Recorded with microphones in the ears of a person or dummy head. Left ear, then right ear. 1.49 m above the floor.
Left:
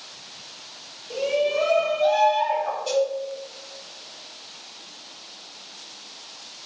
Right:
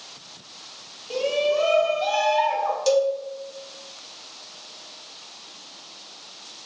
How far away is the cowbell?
About 1.0 m.